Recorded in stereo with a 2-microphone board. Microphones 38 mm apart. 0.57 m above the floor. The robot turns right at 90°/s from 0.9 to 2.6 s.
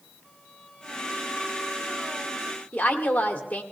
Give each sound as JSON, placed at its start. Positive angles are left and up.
{"t": 0.2, "sound": "a violin", "azimuth_deg": 160, "distance_m": 8.5}
{"t": 2.7, "sound": "a woman speaking", "side_deg": 35, "distance_m": 1.6}